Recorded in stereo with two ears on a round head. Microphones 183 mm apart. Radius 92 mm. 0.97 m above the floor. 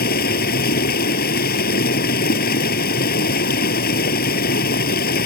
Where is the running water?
50° left (ahead or behind).